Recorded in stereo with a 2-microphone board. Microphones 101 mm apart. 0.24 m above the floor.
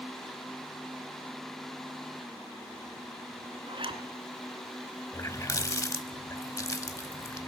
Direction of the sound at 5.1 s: 30° left (ahead or behind).